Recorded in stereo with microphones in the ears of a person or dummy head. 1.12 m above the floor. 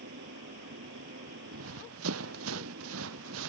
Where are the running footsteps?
80° right; by 3.5 s 85° right.